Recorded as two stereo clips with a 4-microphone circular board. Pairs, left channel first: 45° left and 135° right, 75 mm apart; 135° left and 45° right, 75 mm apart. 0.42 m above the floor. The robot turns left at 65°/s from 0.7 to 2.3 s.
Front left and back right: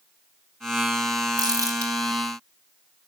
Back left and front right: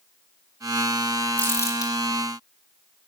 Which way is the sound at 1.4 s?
160° right.